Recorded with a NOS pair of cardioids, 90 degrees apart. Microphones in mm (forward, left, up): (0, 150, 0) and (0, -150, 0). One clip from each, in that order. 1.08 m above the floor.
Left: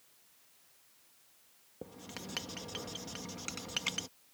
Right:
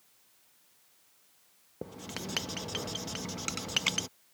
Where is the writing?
35° right.